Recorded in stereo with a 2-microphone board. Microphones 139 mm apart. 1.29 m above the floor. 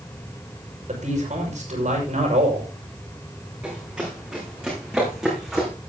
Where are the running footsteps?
10° right (ahead or behind), 7.5 m; by 5.7 s centre (ahead or behind), 6.5 m.